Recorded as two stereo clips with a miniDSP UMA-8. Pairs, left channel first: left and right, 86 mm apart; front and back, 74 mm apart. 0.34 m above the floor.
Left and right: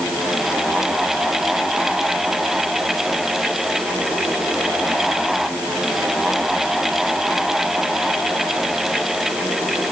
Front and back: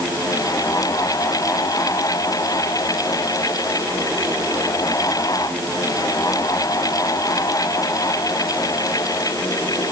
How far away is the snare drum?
I don't hear a snare drum.